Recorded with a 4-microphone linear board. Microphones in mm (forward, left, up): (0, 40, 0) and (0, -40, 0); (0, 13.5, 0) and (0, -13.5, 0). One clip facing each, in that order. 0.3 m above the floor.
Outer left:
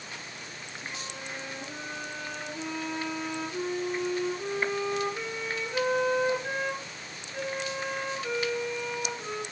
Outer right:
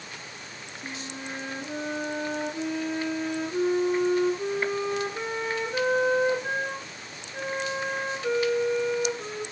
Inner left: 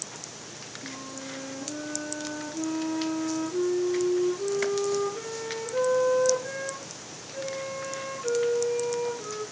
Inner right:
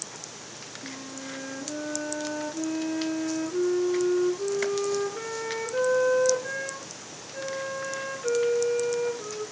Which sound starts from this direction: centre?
A flute, at 0.8 s.